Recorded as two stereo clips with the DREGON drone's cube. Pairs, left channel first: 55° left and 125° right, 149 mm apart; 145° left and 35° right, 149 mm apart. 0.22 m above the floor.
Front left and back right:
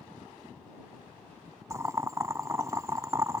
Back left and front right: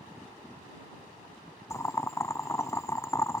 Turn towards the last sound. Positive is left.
turn(degrees=-165)